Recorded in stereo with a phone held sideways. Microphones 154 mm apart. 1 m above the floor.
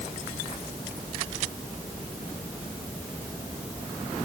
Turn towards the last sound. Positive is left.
No sound to turn to.